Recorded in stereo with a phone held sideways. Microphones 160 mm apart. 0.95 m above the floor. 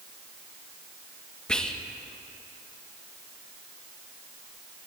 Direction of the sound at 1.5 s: 5° left (ahead or behind).